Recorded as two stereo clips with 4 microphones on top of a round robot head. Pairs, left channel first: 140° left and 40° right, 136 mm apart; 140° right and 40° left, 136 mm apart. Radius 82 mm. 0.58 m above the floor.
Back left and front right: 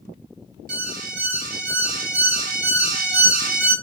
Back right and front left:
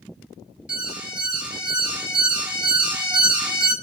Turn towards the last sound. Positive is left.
turn(degrees=-40)